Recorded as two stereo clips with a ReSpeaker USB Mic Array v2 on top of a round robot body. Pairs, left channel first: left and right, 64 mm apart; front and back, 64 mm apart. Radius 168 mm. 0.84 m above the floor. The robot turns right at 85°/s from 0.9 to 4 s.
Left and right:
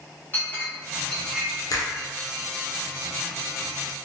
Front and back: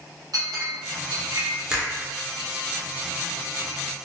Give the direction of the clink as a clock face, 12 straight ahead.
7 o'clock.